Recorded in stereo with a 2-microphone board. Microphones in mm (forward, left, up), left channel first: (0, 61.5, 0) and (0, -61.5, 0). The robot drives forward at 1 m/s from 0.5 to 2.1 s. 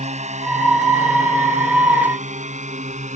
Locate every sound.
0.0 s a drone: 70° right (ahead or behind); by 3.2 s 75° right (ahead or behind)